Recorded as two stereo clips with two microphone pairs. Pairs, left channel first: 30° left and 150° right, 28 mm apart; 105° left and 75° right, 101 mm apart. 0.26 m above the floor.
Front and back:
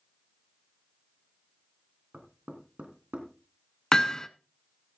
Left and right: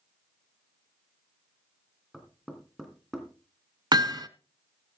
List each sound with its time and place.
2.1 s knocking: 160° right, 2.5 m
3.9 s hammering: 30° right, 0.7 m